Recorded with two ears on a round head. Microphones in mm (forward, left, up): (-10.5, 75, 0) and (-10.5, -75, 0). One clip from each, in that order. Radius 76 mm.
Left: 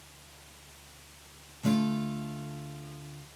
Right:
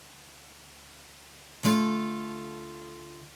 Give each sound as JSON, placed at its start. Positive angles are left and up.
{"t": 1.6, "sound": "a guitar", "side_deg": -45, "distance_m": 0.6}